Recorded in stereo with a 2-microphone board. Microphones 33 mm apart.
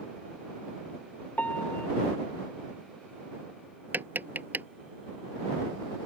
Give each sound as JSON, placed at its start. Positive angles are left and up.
{"t": 1.4, "sound": "a piano", "side_deg": 50}
{"t": 3.9, "sound": "tapping", "side_deg": -70}